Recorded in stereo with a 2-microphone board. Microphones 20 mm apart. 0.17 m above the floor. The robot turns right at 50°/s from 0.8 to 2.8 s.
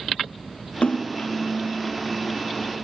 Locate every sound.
0.8 s a splash: 65° left (ahead or behind), 3 m; by 1.3 s 85° left, 3 m